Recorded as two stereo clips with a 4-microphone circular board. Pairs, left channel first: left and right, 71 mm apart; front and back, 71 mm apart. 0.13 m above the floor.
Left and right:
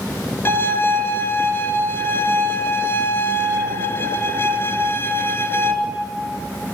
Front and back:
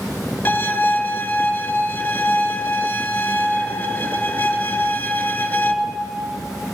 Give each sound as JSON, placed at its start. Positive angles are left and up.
{"t": 0.5, "sound": "a violin", "azimuth_deg": 60, "distance_m": 2.0}